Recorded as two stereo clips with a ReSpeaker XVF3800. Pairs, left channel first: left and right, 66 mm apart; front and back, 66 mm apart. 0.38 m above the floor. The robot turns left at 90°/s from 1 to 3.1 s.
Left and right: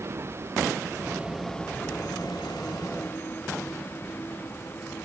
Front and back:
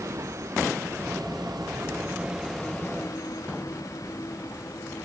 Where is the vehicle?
140° right; by 5.0 s 35° left.